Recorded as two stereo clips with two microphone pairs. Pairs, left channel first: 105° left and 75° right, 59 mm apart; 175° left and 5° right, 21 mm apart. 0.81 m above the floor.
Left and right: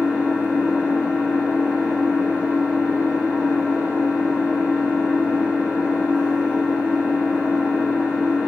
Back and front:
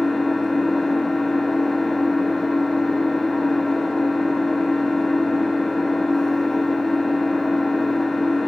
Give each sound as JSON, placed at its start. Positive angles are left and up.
{"t": 0.0, "sound": "an engine running", "azimuth_deg": -140, "distance_m": 0.9}